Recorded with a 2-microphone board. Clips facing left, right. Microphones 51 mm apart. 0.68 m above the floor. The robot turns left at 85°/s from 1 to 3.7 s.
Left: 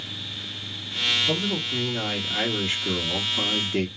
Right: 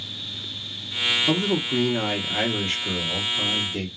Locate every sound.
1.3 s a man speaking: 65° right, 1.2 m; by 3.9 s 85° left, 1.2 m